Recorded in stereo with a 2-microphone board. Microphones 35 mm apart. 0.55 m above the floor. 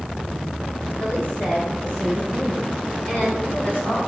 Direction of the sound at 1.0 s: 40° left (ahead or behind).